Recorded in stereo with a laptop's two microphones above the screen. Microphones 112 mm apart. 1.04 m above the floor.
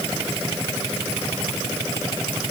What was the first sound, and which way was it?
Only background noise.